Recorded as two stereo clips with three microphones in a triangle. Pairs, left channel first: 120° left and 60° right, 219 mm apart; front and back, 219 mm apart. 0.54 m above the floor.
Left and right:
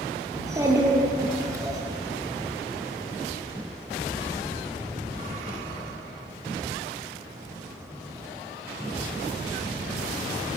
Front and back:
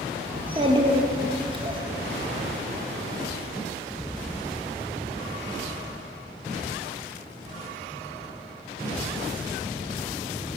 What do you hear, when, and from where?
0.3 s a child speaking: 125° right, 1.0 m